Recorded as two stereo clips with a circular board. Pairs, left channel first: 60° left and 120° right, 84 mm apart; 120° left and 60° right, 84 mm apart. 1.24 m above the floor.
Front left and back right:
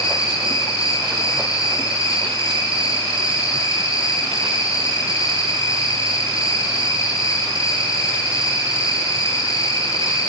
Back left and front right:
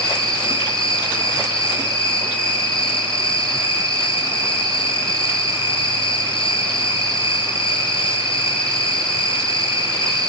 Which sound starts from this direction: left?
An insect, at 0.0 s.